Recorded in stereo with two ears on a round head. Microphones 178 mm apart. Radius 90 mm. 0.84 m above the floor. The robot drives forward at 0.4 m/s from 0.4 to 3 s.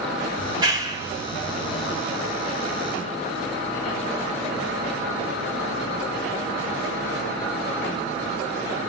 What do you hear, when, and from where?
0.4 s a clap: 25° right (ahead or behind), 3.5 m; by 2.0 s 20° right (ahead or behind), 4 m